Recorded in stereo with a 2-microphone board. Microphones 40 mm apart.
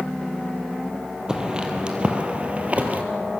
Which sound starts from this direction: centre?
Footsteps, at 1.3 s.